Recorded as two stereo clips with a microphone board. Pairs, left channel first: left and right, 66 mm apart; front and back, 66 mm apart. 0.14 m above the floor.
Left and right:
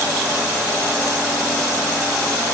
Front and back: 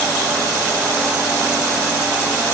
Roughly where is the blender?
I don't hear a blender.